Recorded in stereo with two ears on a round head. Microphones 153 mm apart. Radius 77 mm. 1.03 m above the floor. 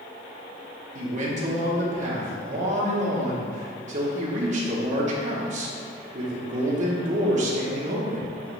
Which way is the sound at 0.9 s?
45° right (ahead or behind).